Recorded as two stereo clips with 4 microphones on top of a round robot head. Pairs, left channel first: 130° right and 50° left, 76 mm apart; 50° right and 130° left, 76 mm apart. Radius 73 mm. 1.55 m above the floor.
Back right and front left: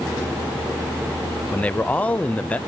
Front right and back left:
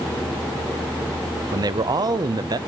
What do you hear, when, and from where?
1.5 s a man speaking: 160° left, 0.8 m